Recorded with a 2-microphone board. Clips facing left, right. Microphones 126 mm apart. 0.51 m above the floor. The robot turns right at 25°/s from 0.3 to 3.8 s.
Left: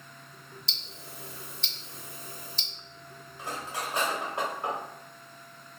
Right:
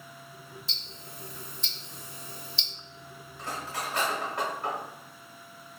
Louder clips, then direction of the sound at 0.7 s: Even; 85° left.